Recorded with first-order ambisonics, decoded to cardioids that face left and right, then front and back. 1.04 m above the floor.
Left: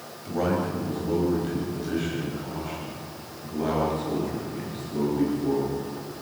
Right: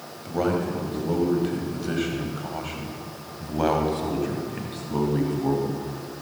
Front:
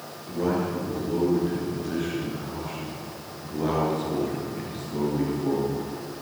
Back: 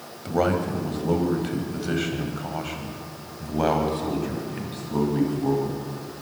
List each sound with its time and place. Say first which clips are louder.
0.2 s a man speaking: right 1 dB, back 4 dB; 170° right, 5 m; by 5.8 s 120° right, 7 m